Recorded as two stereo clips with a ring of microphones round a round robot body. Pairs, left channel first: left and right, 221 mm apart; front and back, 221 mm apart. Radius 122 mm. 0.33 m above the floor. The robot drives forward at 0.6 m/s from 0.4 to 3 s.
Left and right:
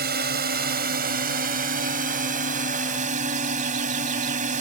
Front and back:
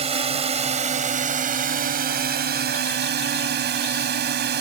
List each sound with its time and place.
0.0 s a drone: 125° right; by 4.6 s 145° right